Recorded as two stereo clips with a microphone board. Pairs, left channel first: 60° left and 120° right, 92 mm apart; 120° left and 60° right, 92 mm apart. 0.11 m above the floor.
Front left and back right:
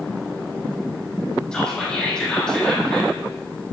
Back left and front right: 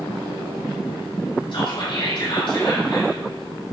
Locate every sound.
1.5 s whispering: 140° left, 3.5 m